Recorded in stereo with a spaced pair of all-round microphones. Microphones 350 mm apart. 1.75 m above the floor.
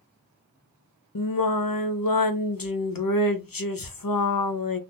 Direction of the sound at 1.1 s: 70° left (ahead or behind).